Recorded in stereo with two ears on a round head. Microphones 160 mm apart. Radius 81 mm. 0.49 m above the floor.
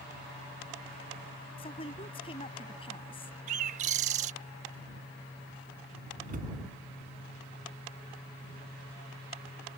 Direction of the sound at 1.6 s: 30° left (ahead or behind).